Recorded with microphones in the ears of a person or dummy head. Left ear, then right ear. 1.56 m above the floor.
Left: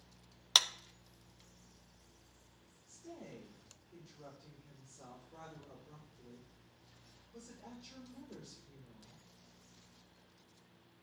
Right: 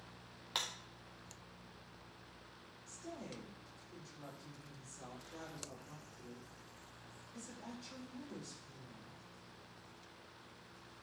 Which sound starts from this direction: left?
A clap, at 0.6 s.